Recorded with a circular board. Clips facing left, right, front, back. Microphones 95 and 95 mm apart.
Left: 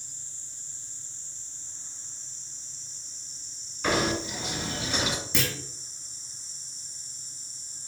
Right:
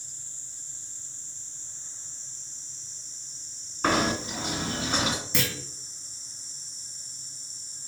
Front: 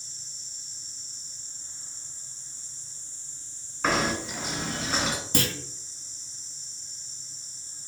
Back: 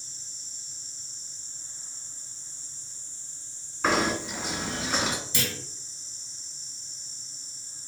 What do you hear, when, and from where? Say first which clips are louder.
3.8 s knocking: right 1 dB, back 1 dB; 95° right, 1.8 m
5.3 s a clunk: even, front 4 dB; straight ahead, 0.6 m